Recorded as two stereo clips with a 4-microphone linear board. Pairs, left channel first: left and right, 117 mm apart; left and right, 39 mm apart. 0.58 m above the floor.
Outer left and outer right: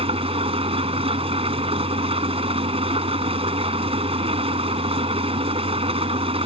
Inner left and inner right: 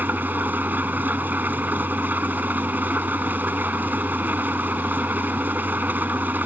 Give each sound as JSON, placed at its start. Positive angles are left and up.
{"t": 0.0, "sound": "an engine running", "side_deg": -55}